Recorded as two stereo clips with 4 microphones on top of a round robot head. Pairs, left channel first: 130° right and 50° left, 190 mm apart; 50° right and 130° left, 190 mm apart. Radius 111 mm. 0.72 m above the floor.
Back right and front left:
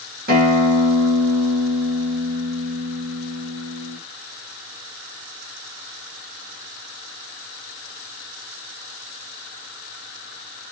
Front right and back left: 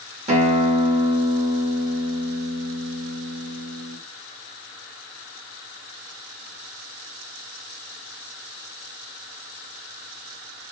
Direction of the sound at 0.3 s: 80° left.